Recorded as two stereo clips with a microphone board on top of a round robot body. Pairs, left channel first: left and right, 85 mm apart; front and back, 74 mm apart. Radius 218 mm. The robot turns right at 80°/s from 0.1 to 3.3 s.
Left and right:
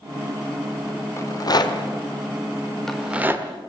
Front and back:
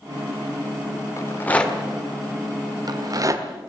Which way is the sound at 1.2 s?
40° left.